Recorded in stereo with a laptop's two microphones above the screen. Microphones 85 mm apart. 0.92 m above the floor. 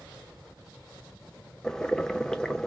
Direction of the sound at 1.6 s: 5° left (ahead or behind).